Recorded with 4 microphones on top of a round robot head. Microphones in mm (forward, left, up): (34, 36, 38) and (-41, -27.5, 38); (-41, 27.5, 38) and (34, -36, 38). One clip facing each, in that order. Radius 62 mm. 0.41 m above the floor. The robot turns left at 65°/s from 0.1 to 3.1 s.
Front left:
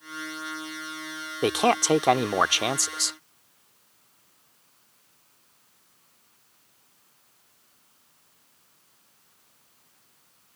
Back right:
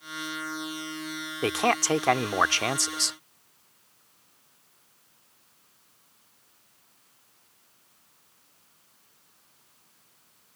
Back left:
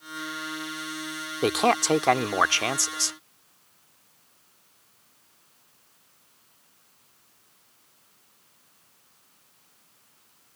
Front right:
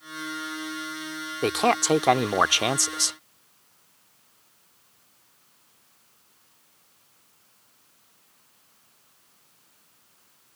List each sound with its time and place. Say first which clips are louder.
1.4 s a man speaking: front left 3 dB, even; 65° left; by 3.2 s 45° right